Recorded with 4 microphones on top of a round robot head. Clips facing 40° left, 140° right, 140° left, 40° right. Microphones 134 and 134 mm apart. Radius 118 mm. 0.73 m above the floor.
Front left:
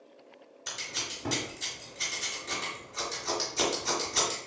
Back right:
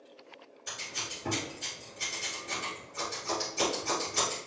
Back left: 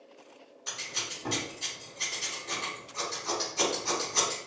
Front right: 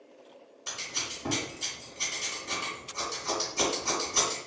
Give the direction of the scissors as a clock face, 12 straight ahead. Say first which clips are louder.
Front left 1 dB, front right 1 dB; 11 o'clock.